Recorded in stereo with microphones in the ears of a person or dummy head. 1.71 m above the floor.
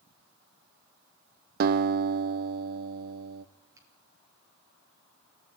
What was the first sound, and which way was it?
A guitar, 55° right (ahead or behind).